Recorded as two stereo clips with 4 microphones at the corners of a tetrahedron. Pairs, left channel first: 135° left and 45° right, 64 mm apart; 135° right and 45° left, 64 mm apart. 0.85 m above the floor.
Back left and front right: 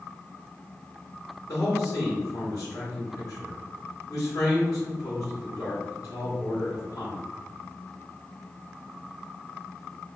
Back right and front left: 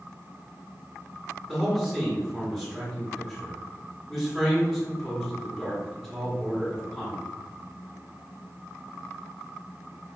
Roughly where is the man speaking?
Behind left.